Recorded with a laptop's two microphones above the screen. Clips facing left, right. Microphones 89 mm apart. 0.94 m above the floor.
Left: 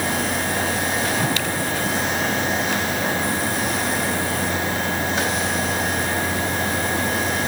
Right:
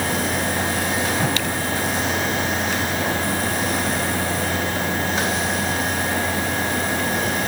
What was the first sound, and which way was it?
Only background noise.